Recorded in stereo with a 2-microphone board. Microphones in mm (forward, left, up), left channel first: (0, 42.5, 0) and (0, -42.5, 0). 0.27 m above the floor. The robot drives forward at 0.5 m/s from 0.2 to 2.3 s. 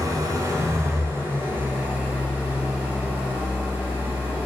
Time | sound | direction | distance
0.0 | an engine running | 45° right (ahead or behind) | 0.8 m